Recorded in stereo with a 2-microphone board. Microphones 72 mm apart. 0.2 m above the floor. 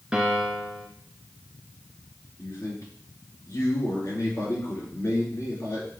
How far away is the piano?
About 1.2 m.